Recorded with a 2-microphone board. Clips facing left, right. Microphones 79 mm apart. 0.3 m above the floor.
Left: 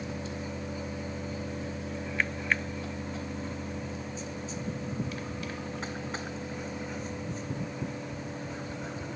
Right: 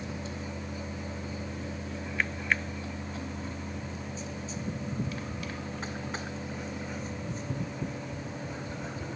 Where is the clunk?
I don't hear a clunk.